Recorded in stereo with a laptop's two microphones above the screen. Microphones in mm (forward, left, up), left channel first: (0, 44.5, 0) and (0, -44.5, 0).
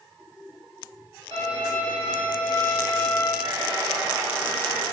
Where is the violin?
75° right (ahead or behind), 1.1 m.